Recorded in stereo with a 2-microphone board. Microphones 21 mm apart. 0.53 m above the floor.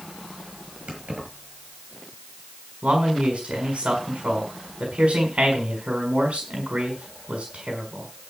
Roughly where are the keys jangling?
Right.